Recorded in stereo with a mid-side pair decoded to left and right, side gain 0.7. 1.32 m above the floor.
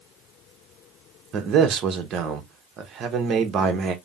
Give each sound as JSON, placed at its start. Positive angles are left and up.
{"t": 1.3, "sound": "a man speaking", "azimuth_deg": -45, "distance_m": 1.1}